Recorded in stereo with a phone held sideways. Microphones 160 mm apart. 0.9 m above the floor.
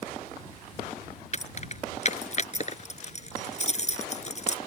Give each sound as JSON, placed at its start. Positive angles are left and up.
{"t": 1.3, "sound": "keys jangling", "side_deg": 45}